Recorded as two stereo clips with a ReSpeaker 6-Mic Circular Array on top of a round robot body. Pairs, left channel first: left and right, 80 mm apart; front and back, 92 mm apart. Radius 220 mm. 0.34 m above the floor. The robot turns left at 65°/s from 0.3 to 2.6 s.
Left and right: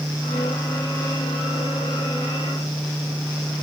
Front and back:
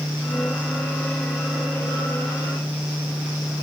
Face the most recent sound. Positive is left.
No sound to turn to.